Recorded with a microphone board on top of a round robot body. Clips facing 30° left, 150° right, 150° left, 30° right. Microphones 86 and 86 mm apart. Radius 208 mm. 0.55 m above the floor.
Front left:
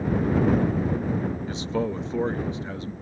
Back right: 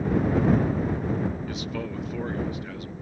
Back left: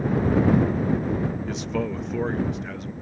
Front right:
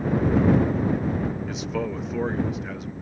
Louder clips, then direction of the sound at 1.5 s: Front left 5 dB, back left 1 dB; 55° left.